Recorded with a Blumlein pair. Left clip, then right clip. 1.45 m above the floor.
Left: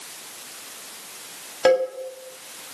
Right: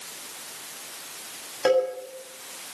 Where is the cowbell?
15° left, 7.5 m.